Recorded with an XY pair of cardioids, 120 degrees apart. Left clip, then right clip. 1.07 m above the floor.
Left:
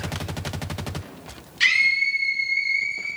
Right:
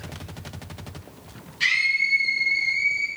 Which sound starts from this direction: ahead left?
A scream, at 1.6 s.